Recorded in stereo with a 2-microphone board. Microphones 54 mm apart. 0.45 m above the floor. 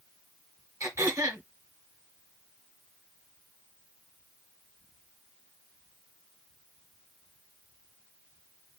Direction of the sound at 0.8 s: 80° right.